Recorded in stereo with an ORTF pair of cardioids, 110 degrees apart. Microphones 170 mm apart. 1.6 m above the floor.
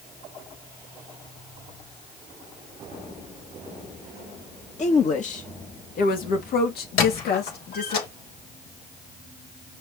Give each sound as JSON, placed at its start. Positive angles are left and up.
{"t": 4.8, "sound": "a woman speaking", "azimuth_deg": 45, "distance_m": 2.5}
{"t": 7.0, "sound": "a squeak", "azimuth_deg": 65, "distance_m": 4.0}